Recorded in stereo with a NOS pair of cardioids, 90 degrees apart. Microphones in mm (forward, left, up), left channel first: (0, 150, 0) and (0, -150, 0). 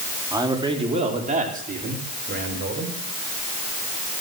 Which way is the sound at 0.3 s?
10° right.